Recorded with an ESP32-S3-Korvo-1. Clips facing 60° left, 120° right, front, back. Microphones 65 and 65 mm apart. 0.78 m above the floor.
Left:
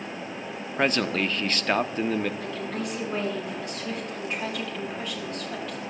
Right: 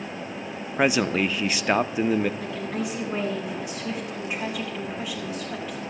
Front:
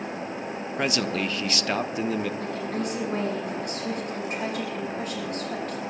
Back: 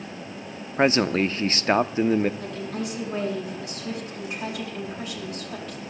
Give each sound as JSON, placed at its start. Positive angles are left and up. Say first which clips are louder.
{"t": 0.8, "sound": "a man speaking", "louder": "right 3 dB, back 7 dB", "azimuth_deg": 170, "distance_m": 0.6}
{"t": 2.4, "sound": "a woman speaking", "louder": "right 2 dB, front 2 dB", "azimuth_deg": -40, "distance_m": 6.5}